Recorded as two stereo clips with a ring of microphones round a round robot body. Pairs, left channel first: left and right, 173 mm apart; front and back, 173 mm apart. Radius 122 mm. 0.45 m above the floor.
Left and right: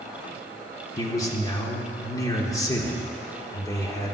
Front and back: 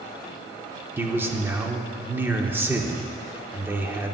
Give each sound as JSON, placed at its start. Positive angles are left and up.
{"t": 1.0, "sound": "a man speaking", "azimuth_deg": 120, "distance_m": 0.9}